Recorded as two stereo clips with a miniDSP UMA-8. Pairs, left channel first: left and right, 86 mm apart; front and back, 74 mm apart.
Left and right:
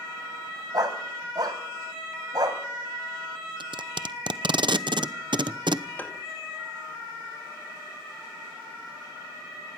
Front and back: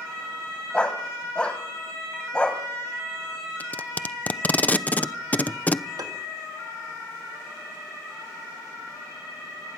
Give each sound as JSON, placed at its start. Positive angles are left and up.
{"t": 0.7, "sound": "a dog barking", "azimuth_deg": -75, "distance_m": 2.0}
{"t": 3.6, "sound": "tape being pulled", "azimuth_deg": -70, "distance_m": 0.8}
{"t": 6.0, "sound": "tapping", "azimuth_deg": 155, "distance_m": 2.0}